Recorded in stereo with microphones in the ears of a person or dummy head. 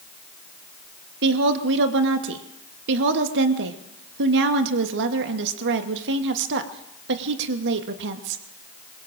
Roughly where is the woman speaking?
Right.